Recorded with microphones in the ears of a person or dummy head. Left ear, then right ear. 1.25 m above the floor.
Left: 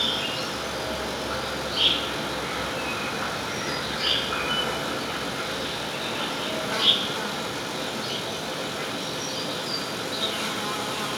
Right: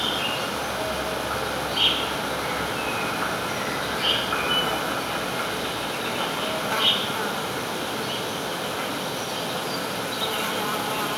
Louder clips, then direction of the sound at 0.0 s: Right 1 dB; 10° right (ahead or behind).